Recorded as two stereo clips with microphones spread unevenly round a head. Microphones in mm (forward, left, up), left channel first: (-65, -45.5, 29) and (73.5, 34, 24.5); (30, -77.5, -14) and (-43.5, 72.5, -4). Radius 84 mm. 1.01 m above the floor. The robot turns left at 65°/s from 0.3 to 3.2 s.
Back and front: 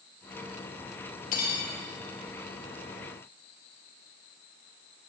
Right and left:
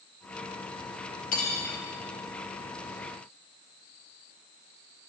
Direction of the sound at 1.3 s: 105° right.